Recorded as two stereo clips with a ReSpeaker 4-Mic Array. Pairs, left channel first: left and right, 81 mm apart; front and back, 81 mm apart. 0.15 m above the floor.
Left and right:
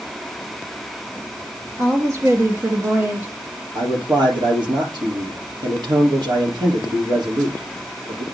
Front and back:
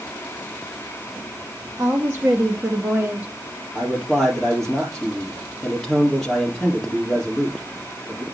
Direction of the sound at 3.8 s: 85° right.